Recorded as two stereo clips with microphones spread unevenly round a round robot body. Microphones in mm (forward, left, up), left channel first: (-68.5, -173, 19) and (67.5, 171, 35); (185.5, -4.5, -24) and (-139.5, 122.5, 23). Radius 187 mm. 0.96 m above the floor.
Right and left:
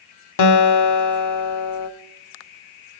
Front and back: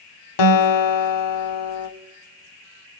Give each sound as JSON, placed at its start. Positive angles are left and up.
{"t": 0.4, "sound": "a guitar", "azimuth_deg": -65, "distance_m": 1.2}